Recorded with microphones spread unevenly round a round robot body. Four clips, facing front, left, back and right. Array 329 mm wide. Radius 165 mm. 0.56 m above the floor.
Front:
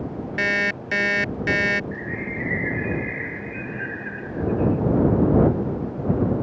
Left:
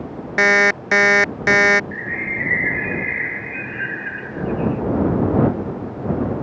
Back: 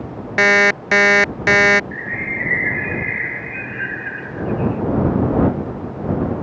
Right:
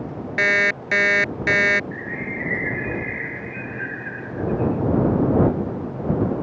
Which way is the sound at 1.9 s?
135° left.